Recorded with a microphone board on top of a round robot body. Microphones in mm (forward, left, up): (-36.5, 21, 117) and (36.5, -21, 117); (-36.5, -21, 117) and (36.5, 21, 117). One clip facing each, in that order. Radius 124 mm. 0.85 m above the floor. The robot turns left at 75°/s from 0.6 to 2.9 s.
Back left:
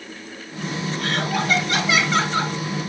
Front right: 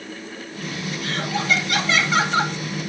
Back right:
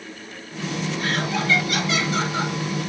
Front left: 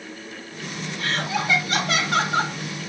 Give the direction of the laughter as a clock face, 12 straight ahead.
7 o'clock.